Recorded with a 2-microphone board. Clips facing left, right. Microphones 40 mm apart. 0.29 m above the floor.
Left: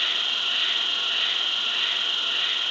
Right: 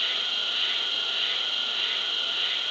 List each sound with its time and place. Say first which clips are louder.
0.0 s an insect: left 3 dB; 70° left (ahead or behind), 1.0 m